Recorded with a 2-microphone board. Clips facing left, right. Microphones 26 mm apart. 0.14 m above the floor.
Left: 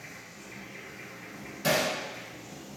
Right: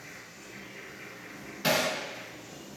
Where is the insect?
80° left, 1.5 m.